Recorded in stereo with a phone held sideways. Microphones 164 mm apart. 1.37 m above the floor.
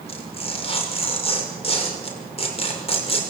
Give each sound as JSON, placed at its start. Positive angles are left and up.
{"t": 0.1, "sound": "tearing paper", "side_deg": 35, "distance_m": 6.0}